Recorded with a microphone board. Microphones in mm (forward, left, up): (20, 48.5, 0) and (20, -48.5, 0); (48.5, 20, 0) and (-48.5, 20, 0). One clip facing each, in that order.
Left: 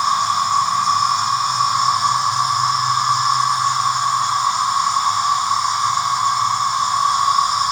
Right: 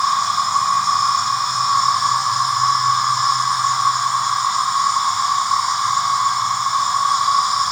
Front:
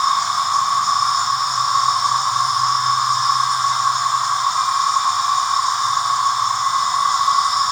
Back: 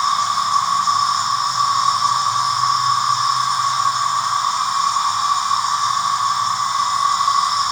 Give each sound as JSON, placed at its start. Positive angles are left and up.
{"t": 0.0, "sound": "an insect", "azimuth_deg": -5, "distance_m": 1.4}